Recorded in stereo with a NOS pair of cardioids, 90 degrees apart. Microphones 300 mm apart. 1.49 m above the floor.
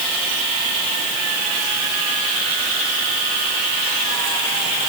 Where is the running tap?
No running tap in this recording.